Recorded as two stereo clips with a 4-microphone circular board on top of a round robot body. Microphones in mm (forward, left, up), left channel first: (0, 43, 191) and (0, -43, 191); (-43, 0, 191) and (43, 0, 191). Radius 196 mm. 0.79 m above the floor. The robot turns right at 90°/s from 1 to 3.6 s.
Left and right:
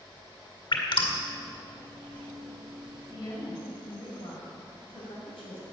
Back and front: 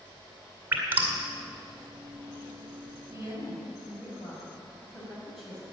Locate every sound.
0.7 s dripping: 70° left, 2 m; by 1.2 s 85° left, 2 m
3.1 s a woman speaking: 45° left, 6 m; by 5.6 s 90° left, 6 m